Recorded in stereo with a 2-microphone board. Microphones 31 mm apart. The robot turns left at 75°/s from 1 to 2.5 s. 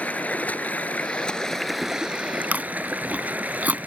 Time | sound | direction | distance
0.0 | running water | 50° left | ?
2.5 | chewing | 60° right (ahead or behind) | ?